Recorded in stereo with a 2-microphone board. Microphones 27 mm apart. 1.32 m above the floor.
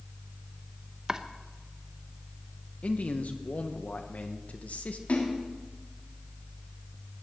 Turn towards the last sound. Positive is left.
turn(degrees=75)  # may be behind; listen again after turning